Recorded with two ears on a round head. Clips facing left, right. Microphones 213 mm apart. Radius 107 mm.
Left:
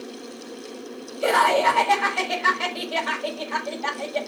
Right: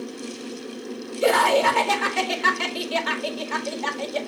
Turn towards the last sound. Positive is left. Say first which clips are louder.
# right 2 dB
turn(degrees=-65)  # may be behind; listen again after turning